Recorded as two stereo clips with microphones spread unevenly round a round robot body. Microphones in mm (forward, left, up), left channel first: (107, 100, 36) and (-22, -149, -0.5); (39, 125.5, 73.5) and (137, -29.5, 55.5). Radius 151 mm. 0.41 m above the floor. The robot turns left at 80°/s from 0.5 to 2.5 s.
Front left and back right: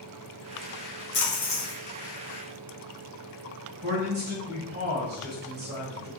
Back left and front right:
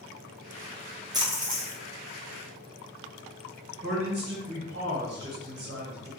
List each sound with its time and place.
1.1 s a splash: 10° left, 1.6 m; by 1.8 s 40° right, 1.6 m
3.8 s a man speaking: 70° right, 1.9 m